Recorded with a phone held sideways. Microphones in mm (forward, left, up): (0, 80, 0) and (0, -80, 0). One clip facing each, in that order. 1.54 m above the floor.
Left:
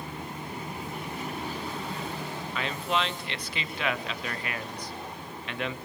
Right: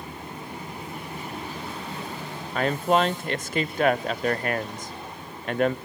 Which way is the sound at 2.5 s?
45° right (ahead or behind).